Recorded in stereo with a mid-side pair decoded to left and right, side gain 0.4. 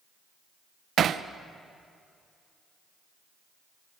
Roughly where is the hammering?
Ahead right.